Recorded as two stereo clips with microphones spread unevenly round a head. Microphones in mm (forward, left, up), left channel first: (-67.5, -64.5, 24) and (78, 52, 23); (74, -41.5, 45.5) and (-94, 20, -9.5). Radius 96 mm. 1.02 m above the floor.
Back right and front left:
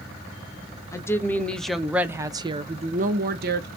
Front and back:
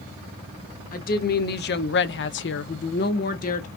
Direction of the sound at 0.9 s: 70° right.